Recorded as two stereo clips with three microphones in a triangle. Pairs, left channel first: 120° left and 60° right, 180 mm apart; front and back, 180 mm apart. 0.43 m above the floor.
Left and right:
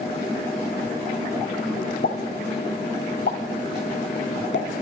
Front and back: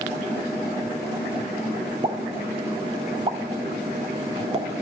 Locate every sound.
2.0 s a pop: 125° left, 0.8 m